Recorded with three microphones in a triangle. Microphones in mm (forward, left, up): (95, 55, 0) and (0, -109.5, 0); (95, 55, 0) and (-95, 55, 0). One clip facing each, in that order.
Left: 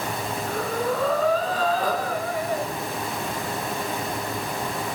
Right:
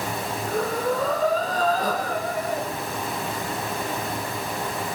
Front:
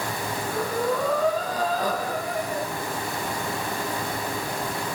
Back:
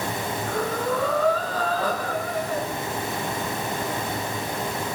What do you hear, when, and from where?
0.5 s breathing: 75° right, 4 m